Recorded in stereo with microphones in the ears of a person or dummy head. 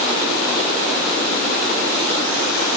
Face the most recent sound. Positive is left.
No sound to turn to.